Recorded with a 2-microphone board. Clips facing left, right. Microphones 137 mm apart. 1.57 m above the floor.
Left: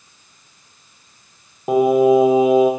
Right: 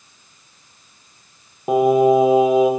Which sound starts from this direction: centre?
Singing, at 1.7 s.